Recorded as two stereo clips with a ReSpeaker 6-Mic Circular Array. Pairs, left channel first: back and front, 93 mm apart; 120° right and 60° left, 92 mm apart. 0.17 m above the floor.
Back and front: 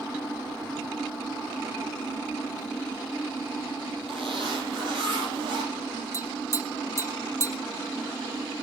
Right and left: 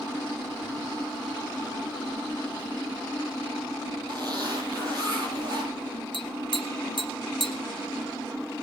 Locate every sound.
4.1 s a zipper: 15° left, 6 m
6.1 s tapping: 125° right, 1.7 m